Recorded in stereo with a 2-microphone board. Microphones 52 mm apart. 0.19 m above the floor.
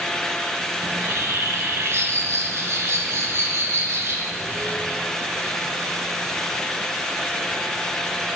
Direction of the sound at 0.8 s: 60° right (ahead or behind).